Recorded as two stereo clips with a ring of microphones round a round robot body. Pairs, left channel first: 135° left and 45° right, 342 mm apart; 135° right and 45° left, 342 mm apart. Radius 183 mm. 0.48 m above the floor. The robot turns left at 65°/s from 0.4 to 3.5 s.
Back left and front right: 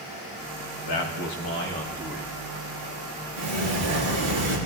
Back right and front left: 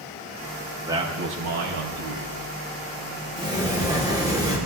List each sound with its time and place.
0.8 s a man speaking: 130° left, 3.5 m; by 2.3 s 30° left, 3.5 m
3.4 s a sliding door: 25° right, 8.5 m; by 4.6 s 35° right, 8.5 m